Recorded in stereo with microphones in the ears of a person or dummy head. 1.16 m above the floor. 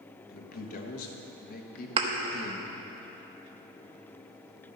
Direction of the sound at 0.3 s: 45° left (ahead or behind).